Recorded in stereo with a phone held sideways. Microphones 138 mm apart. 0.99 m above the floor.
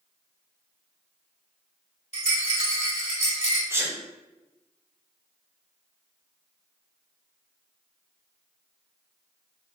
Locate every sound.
2.1 s a rattle: 50° left (ahead or behind), 1.3 m
3.7 s a sneeze: 20° right (ahead or behind), 0.8 m